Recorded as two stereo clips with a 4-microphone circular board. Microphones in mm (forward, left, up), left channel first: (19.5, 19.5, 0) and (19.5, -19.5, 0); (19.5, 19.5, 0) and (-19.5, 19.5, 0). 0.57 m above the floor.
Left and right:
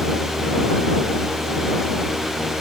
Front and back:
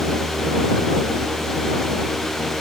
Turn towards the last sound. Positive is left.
No sound to turn to.